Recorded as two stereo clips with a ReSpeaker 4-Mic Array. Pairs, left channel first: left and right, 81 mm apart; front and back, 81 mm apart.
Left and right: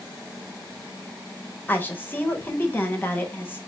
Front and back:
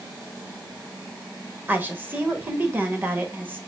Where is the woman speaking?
135° left, 0.9 m.